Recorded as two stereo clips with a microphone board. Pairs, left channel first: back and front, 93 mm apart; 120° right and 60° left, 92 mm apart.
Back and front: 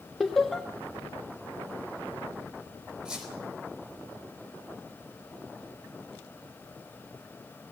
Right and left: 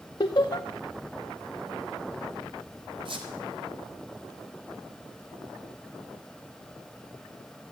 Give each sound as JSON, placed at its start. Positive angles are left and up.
{"t": 0.2, "sound": "laughter", "azimuth_deg": -90, "distance_m": 0.7}
{"t": 3.0, "sound": "a squeak", "azimuth_deg": 80, "distance_m": 4.0}